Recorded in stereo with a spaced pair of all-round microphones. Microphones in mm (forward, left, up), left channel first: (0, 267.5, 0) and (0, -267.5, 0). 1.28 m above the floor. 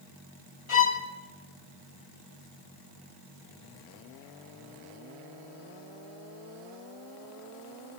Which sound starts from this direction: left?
A violin, at 0.7 s.